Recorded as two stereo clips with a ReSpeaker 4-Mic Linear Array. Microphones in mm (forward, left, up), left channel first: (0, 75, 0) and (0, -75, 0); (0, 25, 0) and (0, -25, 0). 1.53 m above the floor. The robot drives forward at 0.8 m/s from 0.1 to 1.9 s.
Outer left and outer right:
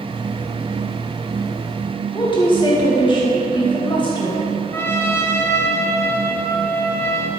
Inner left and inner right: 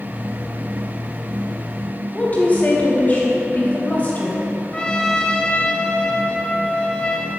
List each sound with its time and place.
2.1 s a woman speaking: 35° left (ahead or behind), 2 m
4.7 s a trumpet: 15° left (ahead or behind), 0.8 m